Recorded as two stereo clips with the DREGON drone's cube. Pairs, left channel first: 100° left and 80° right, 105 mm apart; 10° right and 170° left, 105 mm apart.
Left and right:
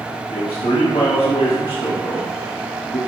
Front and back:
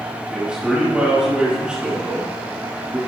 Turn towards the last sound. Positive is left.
turn(degrees=90)